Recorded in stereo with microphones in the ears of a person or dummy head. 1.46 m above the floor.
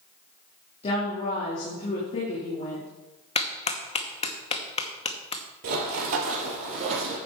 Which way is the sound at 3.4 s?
40° left (ahead or behind).